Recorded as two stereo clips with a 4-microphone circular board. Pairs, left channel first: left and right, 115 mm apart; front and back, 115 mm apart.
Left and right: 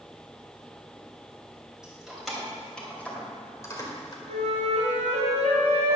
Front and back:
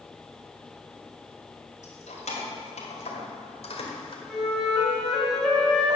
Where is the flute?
90° right, 3 m.